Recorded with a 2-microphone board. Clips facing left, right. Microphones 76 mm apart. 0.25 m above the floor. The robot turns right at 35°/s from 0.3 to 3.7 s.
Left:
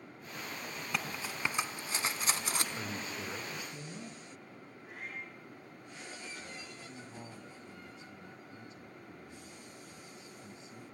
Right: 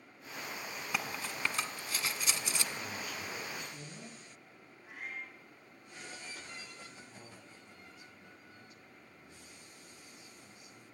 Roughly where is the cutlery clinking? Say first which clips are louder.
Even; centre.